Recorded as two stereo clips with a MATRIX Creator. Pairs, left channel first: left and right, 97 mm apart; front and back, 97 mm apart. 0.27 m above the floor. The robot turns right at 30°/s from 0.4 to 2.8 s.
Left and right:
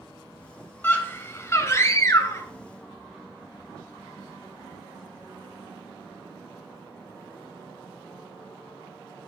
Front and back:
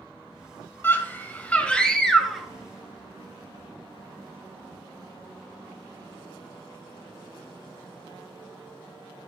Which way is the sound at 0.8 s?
40° left.